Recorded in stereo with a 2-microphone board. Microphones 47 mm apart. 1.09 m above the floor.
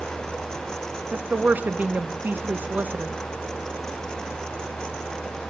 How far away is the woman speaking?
About 0.5 m.